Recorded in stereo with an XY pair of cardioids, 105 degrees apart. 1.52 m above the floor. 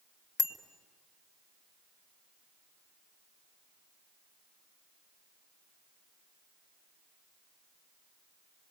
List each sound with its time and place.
0.4 s a bicycle bell: 45° left, 2 m